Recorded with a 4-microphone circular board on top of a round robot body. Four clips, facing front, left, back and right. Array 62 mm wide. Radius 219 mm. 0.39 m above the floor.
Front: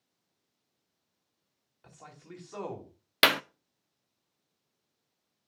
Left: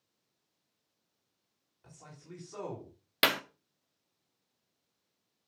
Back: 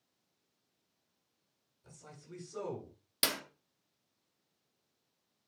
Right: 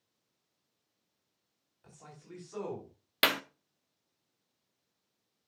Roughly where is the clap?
Ahead.